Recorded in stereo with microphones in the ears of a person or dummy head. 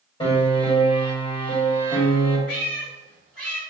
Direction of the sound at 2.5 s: 60° left (ahead or behind).